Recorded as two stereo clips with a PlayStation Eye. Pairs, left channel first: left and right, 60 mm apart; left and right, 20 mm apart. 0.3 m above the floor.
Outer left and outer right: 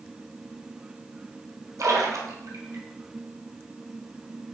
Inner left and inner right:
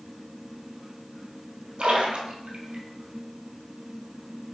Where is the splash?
60° right (ahead or behind), 1.1 m.